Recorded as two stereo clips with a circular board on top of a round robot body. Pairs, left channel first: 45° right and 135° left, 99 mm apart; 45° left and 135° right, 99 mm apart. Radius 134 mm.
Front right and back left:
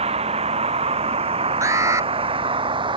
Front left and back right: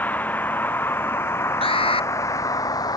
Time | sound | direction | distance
0.0 | a vehicle | 120° left | ?
1.6 | an alarm | 75° left | ?